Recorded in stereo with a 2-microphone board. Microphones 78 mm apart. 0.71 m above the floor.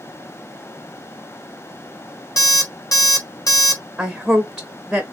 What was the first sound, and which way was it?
An alarm clock, 50° left (ahead or behind).